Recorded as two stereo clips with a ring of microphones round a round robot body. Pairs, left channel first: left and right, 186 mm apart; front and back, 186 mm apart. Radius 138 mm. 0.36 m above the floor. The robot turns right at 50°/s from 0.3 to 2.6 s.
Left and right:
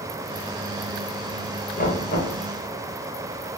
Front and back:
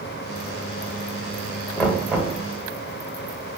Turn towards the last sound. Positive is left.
turn(degrees=125)